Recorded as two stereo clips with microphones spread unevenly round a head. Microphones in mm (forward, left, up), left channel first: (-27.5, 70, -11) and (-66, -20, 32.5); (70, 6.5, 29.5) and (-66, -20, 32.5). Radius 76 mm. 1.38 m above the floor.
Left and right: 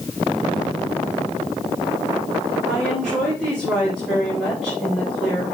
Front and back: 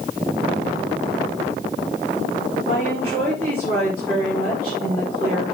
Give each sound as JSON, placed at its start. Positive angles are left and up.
{"t": 2.7, "sound": "a woman speaking", "azimuth_deg": 155, "distance_m": 7.0}